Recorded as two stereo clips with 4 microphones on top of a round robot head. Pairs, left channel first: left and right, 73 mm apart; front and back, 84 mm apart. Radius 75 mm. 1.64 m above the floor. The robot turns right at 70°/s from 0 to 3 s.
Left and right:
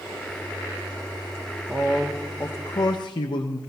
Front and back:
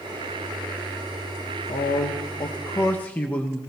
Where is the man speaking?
20° right, 0.8 m; by 3.6 s 70° left, 0.8 m.